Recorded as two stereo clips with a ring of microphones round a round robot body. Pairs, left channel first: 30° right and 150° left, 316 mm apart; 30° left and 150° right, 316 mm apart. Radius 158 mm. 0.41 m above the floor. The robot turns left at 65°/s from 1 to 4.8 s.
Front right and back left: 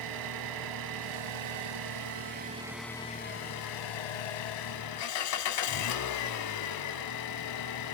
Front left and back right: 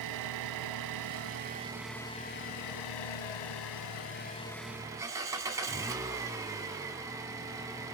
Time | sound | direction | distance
0.0 | an engine running | 175° left | 0.7 m